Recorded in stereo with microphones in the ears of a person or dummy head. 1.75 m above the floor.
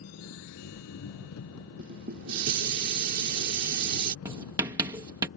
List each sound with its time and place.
0.0 s an engine running: 85° left
1.8 s dishes clattering: 60° right (ahead or behind)
4.2 s writing: 20° right (ahead or behind)